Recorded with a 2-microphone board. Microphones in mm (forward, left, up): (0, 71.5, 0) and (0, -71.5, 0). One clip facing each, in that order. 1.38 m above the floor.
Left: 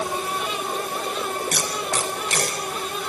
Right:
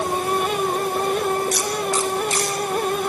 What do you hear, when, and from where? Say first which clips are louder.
1.5 s tape being pulled: right 4 dB; 70° left (ahead or behind), 4 m